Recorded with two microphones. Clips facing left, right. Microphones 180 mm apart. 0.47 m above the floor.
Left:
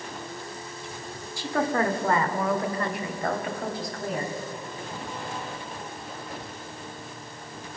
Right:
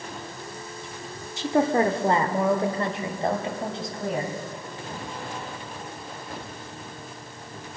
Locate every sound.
1.4 s a woman speaking: 20° right (ahead or behind), 0.9 m; by 4.3 s 25° right (ahead or behind), 3 m